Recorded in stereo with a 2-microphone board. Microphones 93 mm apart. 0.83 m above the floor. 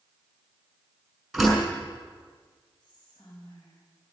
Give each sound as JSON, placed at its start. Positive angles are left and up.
{"t": 1.3, "sound": "a door slam", "side_deg": -5, "distance_m": 5.5}
{"t": 2.8, "sound": "whispering", "side_deg": 55, "distance_m": 4.0}